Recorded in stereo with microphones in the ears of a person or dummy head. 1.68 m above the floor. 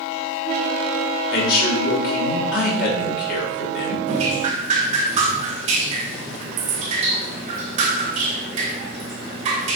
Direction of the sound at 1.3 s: 55° left (ahead or behind).